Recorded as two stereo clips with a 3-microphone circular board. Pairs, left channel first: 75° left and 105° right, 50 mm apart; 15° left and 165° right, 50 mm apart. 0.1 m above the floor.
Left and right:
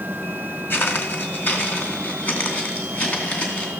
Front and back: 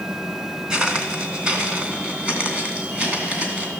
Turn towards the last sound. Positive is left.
turn(degrees=140)